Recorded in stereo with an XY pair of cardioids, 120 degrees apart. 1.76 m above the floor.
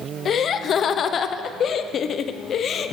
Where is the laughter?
50° left, 1.2 m.